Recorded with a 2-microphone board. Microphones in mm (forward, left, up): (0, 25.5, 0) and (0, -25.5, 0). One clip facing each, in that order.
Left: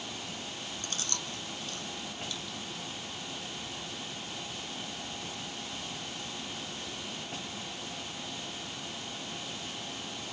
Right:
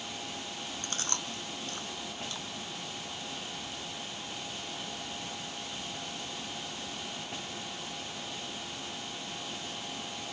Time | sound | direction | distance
0.8 | chewing | 40° right (ahead or behind) | 0.5 m